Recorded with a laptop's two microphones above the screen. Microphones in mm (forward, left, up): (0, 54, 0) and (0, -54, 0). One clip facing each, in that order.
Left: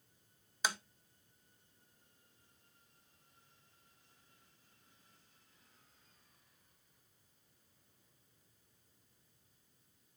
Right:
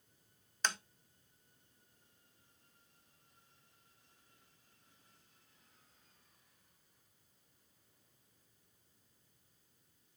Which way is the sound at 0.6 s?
10° left (ahead or behind).